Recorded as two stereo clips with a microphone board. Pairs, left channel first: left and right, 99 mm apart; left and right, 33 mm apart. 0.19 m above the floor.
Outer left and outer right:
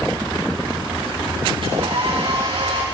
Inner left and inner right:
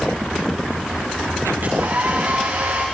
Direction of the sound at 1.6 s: 65° right (ahead or behind).